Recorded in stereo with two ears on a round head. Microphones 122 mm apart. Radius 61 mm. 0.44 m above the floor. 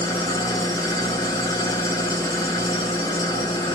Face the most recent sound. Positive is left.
turn(degrees=25)  # may be behind; listen again after turning